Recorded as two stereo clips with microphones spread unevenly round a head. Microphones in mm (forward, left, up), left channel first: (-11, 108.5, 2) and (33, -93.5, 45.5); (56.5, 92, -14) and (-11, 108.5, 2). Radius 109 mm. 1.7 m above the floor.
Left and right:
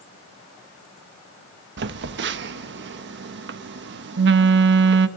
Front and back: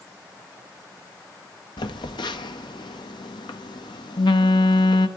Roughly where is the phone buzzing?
Ahead right.